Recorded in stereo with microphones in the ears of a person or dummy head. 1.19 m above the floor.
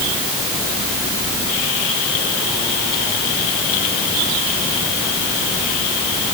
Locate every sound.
Only background noise.